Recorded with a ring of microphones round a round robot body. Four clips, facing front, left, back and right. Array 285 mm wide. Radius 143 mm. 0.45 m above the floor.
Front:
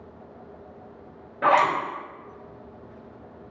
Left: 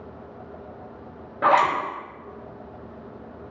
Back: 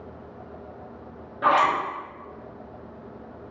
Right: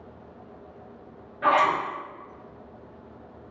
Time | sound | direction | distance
1.4 | a zipper | 80° left | 0.8 m